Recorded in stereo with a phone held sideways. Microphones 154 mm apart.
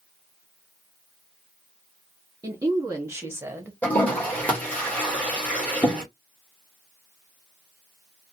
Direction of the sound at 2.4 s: 20° right (ahead or behind).